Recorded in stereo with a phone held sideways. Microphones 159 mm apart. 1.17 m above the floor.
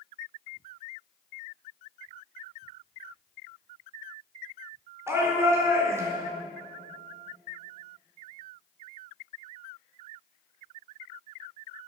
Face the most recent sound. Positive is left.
turn(degrees=-20)  # may be behind; listen again after turning